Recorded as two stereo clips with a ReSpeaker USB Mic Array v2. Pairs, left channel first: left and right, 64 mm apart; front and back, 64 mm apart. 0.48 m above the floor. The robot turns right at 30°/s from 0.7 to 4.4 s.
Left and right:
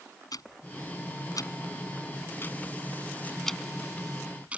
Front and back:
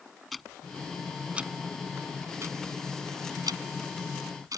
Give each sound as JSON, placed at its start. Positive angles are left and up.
{"t": 0.3, "sound": "ticking", "azimuth_deg": 90}